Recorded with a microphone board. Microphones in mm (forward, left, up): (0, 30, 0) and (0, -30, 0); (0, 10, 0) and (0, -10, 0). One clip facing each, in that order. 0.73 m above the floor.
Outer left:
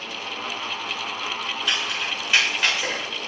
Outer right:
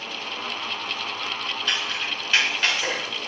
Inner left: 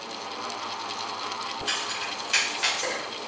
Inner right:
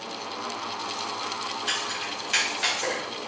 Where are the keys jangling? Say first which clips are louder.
Outer left 1 dB, even; 10° left (ahead or behind), 1.2 m.